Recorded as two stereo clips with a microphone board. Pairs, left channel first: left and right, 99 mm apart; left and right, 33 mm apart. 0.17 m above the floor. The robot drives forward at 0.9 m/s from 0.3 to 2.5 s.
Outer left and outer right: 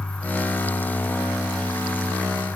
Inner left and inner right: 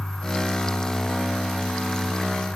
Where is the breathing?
I don't hear breathing.